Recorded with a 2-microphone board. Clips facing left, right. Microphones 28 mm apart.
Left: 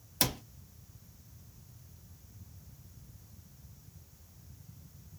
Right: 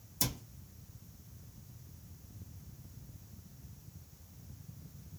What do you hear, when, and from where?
0.2 s a cupboard door: 65° left (ahead or behind), 0.6 m